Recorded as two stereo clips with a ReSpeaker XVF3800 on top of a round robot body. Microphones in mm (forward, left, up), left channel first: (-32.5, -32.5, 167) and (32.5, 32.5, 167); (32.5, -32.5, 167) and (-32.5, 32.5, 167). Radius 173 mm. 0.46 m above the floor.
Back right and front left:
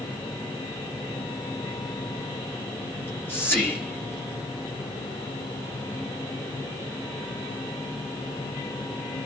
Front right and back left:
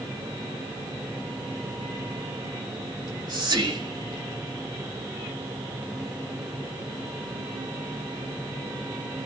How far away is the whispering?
About 3 m.